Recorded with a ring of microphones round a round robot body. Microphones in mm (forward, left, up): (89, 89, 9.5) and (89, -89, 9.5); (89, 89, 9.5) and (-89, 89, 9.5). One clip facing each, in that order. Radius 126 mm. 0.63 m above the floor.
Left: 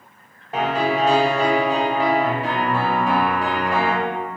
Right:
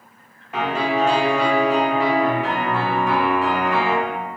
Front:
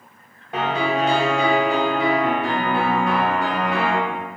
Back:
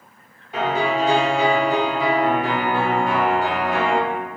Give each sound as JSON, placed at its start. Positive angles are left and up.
{"t": 0.5, "sound": "a piano", "azimuth_deg": 35, "distance_m": 1.3}